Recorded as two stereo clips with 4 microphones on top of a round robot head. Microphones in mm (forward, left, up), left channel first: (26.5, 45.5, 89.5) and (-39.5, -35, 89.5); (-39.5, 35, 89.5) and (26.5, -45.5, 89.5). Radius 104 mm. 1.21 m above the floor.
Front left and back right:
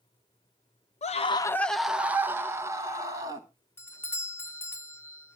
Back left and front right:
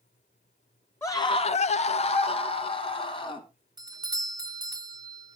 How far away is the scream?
About 0.5 m.